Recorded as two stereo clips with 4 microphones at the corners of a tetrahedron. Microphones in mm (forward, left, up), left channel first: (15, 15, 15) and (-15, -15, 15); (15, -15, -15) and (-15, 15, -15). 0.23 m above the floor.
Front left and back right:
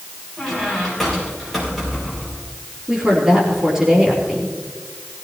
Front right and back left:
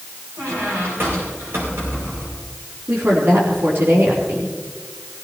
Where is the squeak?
135° left, 6.5 m.